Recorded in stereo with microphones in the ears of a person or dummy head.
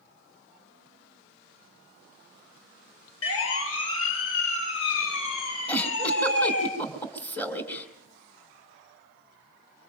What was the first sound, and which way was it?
A siren, 80° left.